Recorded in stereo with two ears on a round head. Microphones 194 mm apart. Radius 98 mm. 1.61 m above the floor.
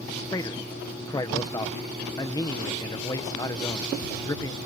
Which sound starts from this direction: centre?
A man speaking, at 0.3 s.